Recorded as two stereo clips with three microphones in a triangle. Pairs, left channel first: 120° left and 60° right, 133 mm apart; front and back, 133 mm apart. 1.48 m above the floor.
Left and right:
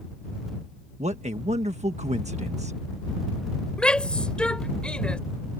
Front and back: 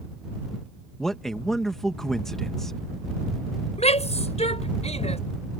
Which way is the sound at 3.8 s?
35° left.